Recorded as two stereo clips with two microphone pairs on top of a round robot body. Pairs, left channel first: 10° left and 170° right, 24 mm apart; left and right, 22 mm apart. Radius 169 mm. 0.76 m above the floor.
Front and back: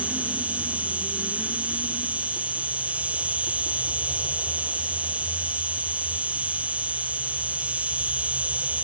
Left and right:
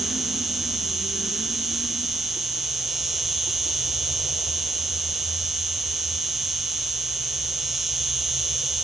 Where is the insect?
175° right.